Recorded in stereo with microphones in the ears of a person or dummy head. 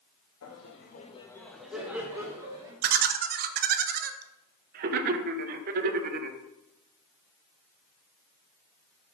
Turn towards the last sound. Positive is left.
turn(degrees=-45)  # may be behind; listen again after turning